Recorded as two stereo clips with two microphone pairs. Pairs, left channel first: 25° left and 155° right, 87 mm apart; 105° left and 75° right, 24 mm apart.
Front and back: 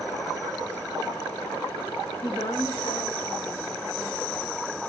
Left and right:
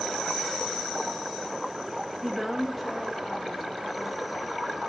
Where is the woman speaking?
15° left, 0.7 m; by 4.8 s 20° left, 3.5 m.